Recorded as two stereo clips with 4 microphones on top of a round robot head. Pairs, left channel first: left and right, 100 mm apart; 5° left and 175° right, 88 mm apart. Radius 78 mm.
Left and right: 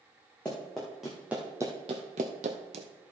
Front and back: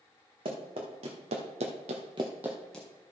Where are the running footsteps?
175° left, 2.5 m; by 2.9 s 75° right, 1.4 m.